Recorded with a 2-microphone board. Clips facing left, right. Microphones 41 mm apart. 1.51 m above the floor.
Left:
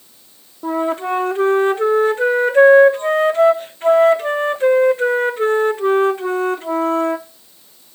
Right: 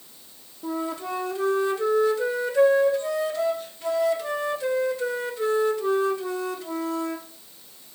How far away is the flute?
About 0.7 m.